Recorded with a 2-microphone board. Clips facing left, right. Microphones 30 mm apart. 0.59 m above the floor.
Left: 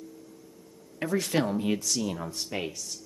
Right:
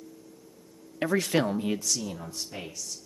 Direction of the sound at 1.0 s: 30° right (ahead or behind).